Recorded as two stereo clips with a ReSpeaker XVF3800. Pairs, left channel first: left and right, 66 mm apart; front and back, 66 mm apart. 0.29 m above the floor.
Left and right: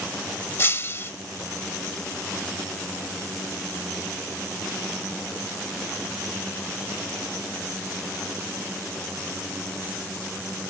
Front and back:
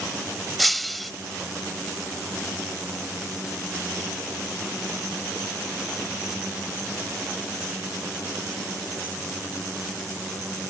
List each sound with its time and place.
0.6 s breaking glass: 90° left